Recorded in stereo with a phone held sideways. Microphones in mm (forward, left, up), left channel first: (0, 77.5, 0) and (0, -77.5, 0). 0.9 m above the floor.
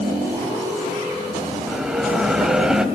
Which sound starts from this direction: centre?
A bell, at 1.7 s.